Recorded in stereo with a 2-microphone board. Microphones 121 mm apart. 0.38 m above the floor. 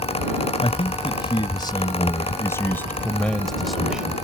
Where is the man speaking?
50° left (ahead or behind); by 4.2 s 10° right (ahead or behind).